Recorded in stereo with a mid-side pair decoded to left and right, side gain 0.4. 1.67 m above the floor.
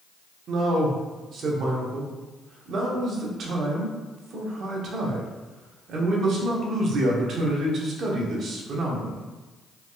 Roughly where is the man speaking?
Ahead right.